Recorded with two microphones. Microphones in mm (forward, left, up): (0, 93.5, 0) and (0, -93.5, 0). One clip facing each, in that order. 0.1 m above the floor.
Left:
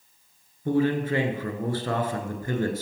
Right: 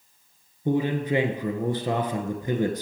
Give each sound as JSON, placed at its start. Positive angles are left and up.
{"t": 0.7, "sound": "a man speaking", "side_deg": -20, "distance_m": 1.2}